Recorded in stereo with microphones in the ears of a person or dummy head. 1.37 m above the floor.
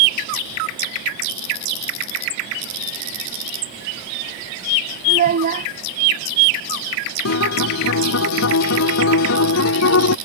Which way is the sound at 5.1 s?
40° right (ahead or behind).